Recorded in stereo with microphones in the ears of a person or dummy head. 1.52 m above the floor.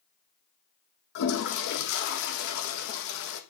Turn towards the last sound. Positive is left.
turn(degrees=60)  # may be behind; listen again after turning